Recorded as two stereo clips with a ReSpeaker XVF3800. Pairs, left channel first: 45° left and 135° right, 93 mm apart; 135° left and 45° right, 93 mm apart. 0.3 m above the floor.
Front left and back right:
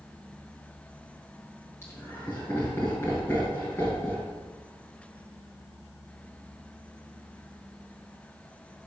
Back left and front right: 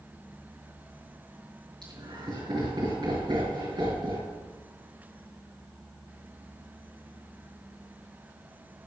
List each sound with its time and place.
1.8 s laughter: 15° right, 4.5 m